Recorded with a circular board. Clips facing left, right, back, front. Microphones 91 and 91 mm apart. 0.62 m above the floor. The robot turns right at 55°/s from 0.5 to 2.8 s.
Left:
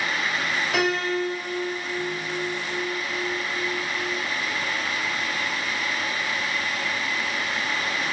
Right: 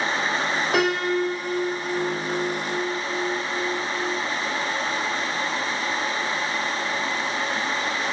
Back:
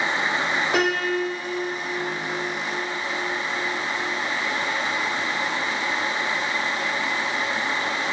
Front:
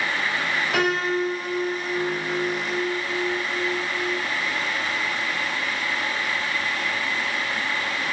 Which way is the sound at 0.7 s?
130° right.